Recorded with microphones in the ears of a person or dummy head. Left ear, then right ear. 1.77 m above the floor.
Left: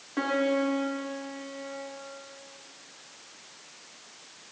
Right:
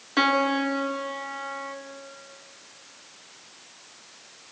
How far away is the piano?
About 2.5 m.